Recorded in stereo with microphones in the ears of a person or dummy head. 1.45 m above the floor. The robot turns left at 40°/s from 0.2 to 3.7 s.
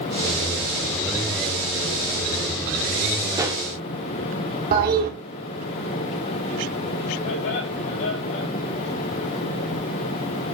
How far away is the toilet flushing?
About 3 m.